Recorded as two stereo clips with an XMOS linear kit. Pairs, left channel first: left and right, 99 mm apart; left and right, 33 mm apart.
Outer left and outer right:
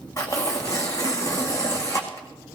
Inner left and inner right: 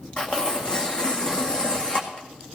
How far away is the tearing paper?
About 1.9 m.